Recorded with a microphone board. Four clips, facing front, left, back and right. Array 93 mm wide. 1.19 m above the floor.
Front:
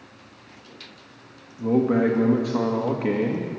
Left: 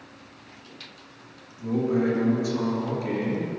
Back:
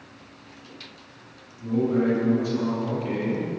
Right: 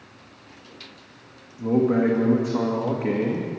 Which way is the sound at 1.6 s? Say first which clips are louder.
Right 4 dB, front 3 dB; 30° right.